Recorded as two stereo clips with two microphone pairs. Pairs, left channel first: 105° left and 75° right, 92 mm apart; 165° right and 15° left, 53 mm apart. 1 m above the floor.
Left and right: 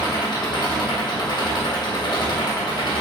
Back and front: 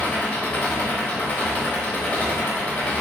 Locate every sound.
0.0 s an engine running: 135° left, 0.7 m